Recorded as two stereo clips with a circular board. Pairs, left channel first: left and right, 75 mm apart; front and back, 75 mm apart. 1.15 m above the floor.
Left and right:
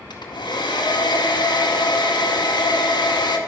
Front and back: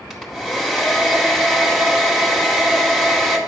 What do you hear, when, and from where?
0.1 s a hair dryer: 90° left, 2 m